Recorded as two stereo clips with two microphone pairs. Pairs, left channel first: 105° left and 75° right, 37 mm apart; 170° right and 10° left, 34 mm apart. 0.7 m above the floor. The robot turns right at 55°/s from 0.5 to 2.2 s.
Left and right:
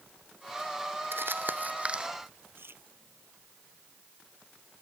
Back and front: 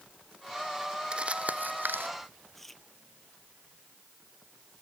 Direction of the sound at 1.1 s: 55° right.